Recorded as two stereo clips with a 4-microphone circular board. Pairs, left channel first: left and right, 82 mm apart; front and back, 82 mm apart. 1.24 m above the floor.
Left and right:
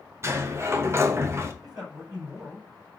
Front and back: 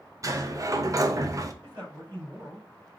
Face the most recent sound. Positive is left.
turn(degrees=-125)